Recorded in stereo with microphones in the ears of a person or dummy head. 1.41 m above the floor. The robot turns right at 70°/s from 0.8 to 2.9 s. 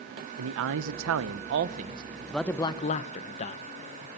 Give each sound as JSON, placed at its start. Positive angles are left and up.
{"t": 0.4, "sound": "a man speaking", "azimuth_deg": -110, "distance_m": 0.8}